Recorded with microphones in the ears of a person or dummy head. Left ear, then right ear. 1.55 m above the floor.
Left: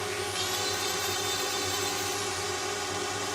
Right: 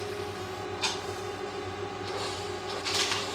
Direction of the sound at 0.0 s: 75° left (ahead or behind).